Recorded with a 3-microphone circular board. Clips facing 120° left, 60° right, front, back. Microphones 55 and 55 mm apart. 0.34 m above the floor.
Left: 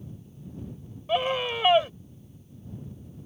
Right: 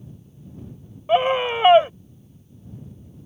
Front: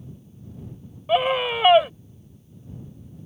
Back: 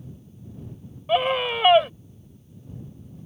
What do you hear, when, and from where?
1.1 s a scream: 85° right